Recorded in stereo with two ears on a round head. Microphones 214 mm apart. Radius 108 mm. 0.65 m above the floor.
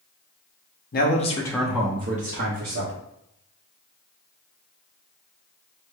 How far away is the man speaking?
About 0.8 m.